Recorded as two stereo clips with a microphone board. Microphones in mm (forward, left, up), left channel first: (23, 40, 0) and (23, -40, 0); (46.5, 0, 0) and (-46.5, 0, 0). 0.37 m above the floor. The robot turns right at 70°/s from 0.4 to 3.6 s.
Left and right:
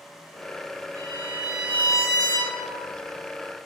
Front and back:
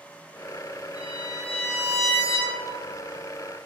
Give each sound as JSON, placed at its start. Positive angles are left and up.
{"t": 0.9, "sound": "a violin", "azimuth_deg": -40, "distance_m": 5.5}